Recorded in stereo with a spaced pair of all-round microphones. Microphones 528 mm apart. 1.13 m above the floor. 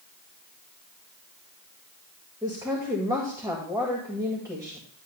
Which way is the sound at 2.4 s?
5° right (ahead or behind).